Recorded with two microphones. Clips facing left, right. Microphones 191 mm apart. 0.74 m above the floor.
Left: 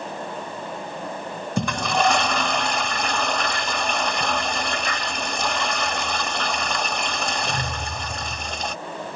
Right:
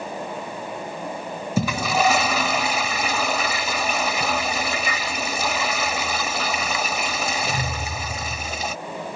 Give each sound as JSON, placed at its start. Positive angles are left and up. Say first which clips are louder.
{"t": 1.6, "sound": "a toilet flushing", "louder": "right 1 dB", "side_deg": -5}